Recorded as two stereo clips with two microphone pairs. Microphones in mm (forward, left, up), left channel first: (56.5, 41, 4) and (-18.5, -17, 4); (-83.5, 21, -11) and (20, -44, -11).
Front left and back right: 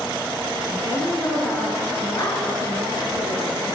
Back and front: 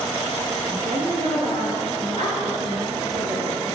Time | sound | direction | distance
0.7 | a woman speaking | 5° right | 8.5 m